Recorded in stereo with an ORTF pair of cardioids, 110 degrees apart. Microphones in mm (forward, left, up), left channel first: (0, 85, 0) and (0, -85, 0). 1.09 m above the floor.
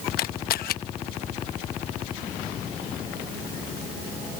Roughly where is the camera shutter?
Ahead left.